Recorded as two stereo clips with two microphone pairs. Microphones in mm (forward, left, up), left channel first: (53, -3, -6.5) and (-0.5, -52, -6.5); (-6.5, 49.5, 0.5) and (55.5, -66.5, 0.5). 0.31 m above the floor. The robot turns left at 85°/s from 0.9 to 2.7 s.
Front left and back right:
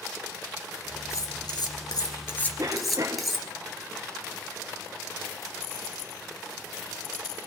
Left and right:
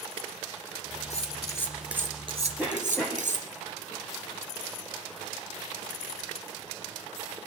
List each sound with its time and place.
1.1 s cutlery clinking: 85° left, 3 m; by 3.6 s 50° right, 3 m
2.6 s a cough: 150° right, 2.0 m; by 3.3 s 160° right, 2.0 m